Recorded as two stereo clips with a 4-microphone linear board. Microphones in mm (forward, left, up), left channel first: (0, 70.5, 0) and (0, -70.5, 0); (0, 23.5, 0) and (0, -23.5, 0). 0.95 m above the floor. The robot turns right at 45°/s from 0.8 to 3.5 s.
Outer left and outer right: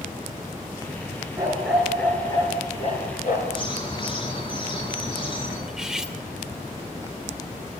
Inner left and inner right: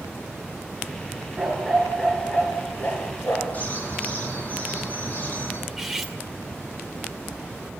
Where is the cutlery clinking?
5° right (ahead or behind), 2 m.